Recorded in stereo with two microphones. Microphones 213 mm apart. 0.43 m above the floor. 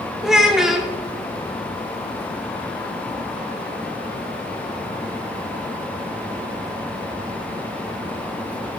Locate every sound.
0.2 s a child speaking: centre (ahead or behind), 0.6 m